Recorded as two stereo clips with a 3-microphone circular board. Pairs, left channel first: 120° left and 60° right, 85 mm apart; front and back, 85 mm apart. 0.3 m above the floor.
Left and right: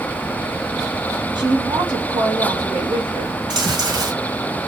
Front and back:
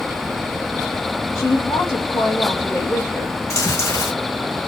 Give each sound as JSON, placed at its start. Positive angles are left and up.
{"t": 1.4, "sound": "a woman speaking", "azimuth_deg": -50, "distance_m": 3.5}
{"t": 3.5, "sound": "chewing", "azimuth_deg": -50, "distance_m": 2.5}